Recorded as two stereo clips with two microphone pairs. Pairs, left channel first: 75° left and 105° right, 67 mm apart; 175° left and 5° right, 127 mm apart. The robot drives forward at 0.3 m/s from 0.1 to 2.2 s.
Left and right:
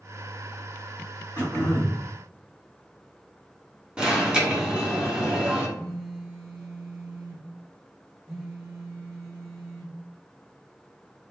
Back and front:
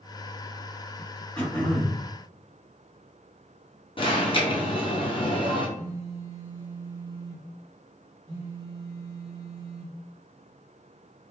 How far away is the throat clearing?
About 1.8 m.